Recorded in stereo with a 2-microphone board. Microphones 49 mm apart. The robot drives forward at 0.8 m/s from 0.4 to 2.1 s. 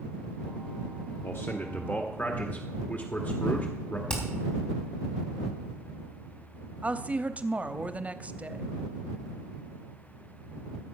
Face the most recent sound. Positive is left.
turn(degrees=-25)  # may be behind; listen again after turning